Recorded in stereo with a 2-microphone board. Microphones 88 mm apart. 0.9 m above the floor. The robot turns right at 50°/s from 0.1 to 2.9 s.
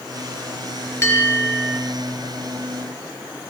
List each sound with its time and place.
1.0 s a bell: 145° left, 5.5 m; by 1.8 s 175° right, 5.5 m